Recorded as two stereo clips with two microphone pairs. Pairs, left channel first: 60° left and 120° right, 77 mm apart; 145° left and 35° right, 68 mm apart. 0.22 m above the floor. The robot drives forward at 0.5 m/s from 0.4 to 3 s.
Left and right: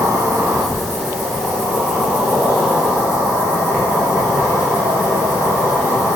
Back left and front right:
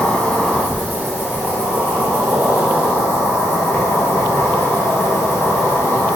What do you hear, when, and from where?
0.0 s an insect: 150° right, 1.0 m; by 6.2 s 170° right, 2 m